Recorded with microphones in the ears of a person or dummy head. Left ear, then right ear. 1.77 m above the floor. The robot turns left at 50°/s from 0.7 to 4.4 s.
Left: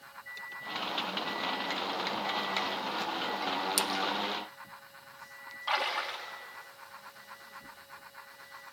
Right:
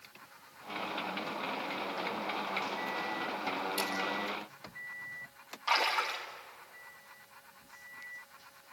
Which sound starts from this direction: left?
A splash, at 3.8 s.